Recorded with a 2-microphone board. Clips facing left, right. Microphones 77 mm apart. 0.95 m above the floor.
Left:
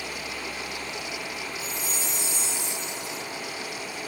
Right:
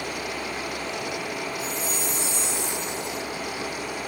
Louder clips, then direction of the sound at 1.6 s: Right 4 dB; 15° left (ahead or behind).